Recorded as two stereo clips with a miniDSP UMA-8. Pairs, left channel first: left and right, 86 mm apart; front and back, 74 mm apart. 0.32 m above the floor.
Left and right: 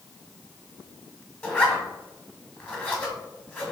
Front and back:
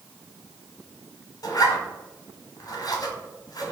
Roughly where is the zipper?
Ahead.